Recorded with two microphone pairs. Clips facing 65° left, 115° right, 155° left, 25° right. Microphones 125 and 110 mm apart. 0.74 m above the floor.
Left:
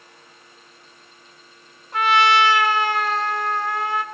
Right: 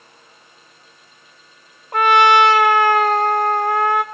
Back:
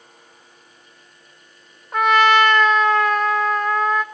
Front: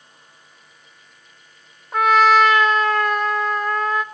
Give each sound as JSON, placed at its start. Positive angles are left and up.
{"t": 1.9, "sound": "a trumpet", "azimuth_deg": -110, "distance_m": 0.8}